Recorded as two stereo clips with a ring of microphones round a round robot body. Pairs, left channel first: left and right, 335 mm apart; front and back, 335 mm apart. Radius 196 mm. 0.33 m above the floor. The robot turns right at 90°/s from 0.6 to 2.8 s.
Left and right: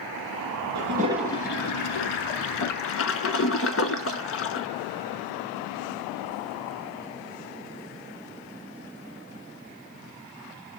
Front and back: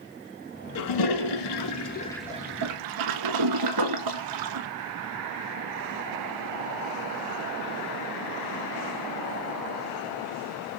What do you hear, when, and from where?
0.8 s a toilet flushing: 40° right, 0.9 m; by 4.7 s 145° left, 0.9 m